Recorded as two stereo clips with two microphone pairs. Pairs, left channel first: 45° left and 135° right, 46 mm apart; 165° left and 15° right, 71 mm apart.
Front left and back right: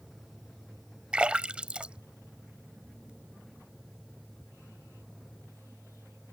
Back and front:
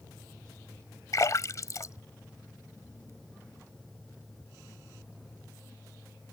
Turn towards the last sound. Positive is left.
turn(degrees=175)